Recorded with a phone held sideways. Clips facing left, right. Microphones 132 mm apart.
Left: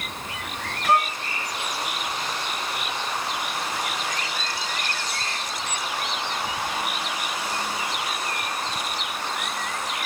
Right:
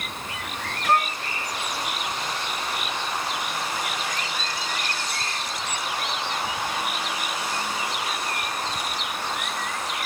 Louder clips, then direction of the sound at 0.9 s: Left 1 dB; 10° left (ahead or behind).